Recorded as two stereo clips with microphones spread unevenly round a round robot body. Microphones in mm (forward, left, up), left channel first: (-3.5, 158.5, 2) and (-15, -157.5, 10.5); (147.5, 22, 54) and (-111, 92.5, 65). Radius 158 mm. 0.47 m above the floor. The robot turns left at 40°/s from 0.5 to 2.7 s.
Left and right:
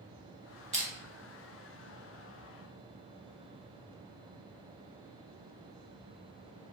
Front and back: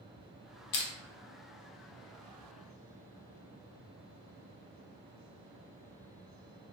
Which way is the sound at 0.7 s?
20° right.